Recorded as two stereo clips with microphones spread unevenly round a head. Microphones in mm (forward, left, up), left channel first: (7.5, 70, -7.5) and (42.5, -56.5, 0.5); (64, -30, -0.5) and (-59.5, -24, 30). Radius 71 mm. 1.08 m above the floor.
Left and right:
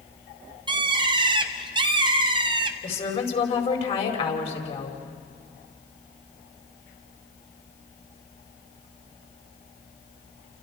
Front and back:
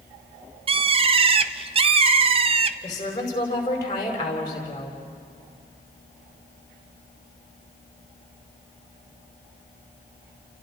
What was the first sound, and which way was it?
A bird, 135° right.